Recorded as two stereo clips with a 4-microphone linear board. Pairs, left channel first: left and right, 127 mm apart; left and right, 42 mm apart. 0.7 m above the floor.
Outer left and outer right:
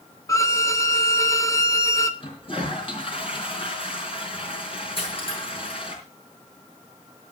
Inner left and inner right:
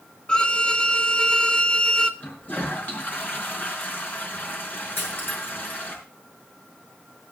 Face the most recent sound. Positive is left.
turn(degrees=50)  # may be behind; listen again after turning